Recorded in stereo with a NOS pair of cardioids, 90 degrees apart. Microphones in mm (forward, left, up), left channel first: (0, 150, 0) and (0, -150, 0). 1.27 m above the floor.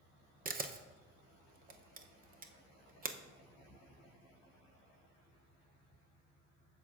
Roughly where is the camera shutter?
Ahead right.